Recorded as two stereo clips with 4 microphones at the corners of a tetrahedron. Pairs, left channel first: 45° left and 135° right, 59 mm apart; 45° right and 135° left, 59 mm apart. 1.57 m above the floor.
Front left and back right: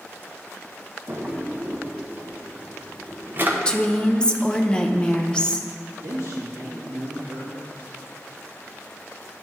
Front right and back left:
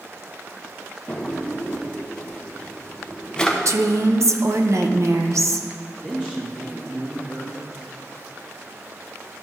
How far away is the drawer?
About 0.8 m.